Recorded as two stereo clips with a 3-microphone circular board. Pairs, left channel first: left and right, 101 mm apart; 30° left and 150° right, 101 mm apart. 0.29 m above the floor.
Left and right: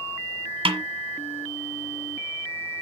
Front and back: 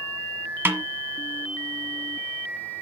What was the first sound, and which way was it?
A snare drum, 85° right.